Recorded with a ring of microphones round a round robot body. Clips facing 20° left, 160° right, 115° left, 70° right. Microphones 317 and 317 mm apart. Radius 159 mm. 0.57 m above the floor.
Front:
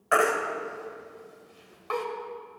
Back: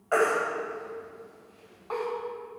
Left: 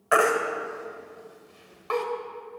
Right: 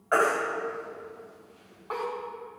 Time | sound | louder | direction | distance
0.1 | a baby crying | back 1 dB, left 3 dB | 70° left | 1.9 m